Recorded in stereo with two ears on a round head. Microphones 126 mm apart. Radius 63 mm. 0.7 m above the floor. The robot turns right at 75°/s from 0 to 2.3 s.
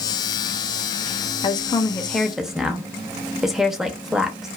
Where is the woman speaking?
35° left (ahead or behind), 0.6 m; by 4.5 s 5° right (ahead or behind), 0.6 m.